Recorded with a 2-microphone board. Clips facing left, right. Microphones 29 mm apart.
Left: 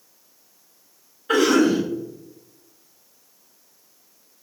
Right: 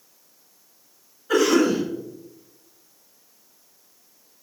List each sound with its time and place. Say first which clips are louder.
1.3 s a cough: left 1 dB; 50° left (ahead or behind), 1.3 m